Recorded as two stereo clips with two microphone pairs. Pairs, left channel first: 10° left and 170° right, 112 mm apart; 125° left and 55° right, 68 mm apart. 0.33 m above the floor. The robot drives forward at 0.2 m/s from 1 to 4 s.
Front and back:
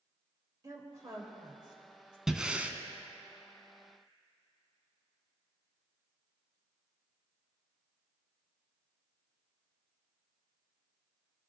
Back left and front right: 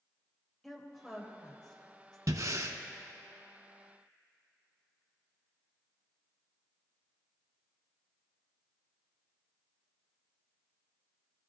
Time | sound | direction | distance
0.6 | a woman speaking | 155° right | 1.0 m
2.3 | breathing | 85° right | 0.5 m